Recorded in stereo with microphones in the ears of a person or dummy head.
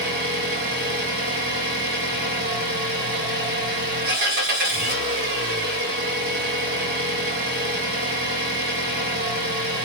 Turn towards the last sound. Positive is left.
turn(degrees=-50)  # may be behind; listen again after turning